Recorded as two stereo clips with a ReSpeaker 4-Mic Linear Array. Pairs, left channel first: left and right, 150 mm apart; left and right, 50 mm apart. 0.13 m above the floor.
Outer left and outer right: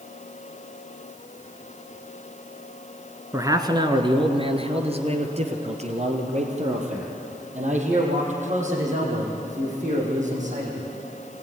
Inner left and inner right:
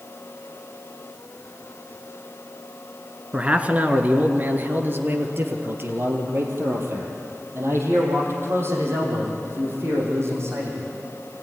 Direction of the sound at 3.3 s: 20° right (ahead or behind).